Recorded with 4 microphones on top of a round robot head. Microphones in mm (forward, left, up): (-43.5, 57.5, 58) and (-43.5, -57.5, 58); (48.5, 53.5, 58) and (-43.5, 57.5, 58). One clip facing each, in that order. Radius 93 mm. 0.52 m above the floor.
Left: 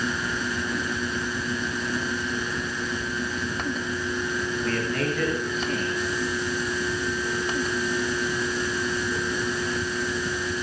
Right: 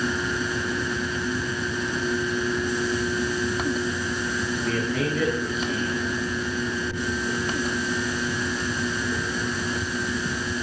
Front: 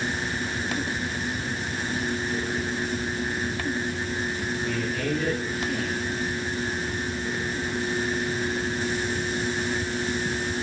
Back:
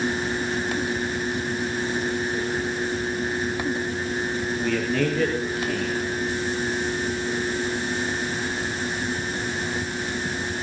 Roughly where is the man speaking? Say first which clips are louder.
Right 1 dB, back 7 dB; behind.